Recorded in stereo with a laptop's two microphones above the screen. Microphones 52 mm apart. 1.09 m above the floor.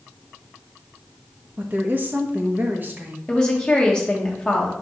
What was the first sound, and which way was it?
A woman speaking, 40° right (ahead or behind).